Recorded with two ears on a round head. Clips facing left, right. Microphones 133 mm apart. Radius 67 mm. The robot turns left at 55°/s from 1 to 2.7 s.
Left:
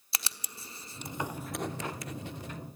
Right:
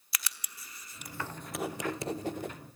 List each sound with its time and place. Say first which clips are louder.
0.1 s writing: left 2 dB; 25° left (ahead or behind), 0.8 m; by 2.5 s 50° right (ahead or behind), 0.8 m